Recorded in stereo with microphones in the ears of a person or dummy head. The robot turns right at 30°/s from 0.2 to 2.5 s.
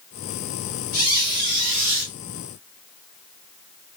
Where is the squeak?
135° right, 2 m; by 2.1 s 95° right, 2 m.